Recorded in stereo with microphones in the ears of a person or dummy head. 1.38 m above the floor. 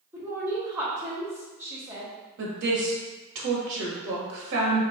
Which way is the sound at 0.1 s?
10° right (ahead or behind).